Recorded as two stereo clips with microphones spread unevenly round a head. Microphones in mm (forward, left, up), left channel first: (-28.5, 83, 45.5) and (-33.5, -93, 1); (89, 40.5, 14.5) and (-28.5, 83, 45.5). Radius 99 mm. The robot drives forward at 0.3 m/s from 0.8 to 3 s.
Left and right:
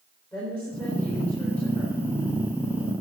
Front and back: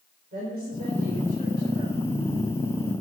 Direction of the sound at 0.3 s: 165° left.